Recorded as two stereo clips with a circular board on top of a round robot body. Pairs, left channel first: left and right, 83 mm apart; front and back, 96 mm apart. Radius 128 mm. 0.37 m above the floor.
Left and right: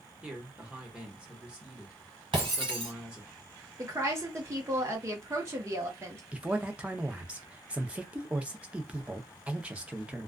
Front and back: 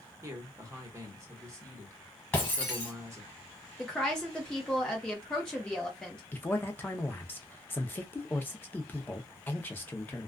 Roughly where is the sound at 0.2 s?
Behind right.